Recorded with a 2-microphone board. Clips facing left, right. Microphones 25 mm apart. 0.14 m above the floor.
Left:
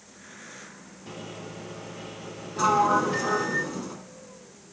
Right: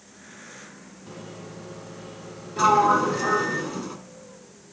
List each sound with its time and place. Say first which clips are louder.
1.1 s a microwave: left 1 dB; 40° left (ahead or behind), 2.5 m
2.6 s a sliding door: right 3 dB; 15° right (ahead or behind), 1.7 m